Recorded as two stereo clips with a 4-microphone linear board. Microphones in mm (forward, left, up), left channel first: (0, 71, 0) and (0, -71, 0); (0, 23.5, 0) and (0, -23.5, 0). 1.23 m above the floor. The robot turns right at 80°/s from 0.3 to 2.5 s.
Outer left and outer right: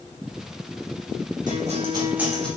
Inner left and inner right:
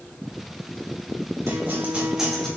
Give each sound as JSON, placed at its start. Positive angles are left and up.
{"t": 1.5, "sound": "a guitar", "azimuth_deg": -70, "distance_m": 1.7}